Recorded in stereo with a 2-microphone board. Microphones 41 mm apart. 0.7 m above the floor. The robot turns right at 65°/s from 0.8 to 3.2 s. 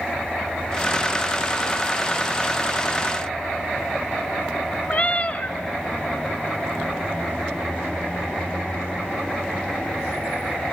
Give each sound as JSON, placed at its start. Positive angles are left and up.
{"t": 4.9, "sound": "a cat meowing", "side_deg": 40, "distance_m": 0.9}